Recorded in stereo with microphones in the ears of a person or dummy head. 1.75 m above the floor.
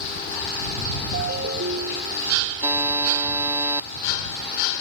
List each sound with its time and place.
1.1 s a ringtone: 50° right (ahead or behind)
2.6 s a buzzer: 15° right (ahead or behind)